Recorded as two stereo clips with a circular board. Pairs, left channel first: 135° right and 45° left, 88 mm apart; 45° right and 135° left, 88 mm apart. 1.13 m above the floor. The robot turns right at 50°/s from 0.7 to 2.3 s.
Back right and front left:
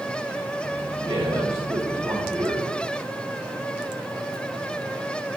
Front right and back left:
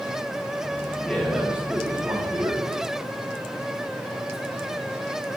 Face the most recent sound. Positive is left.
turn(degrees=95)